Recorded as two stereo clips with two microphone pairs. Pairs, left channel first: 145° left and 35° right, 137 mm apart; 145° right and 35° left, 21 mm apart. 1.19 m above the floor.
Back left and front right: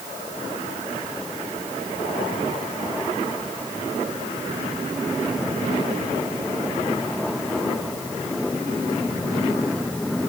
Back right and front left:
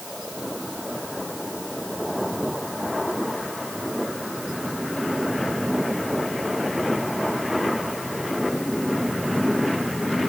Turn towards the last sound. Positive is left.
No sound to turn to.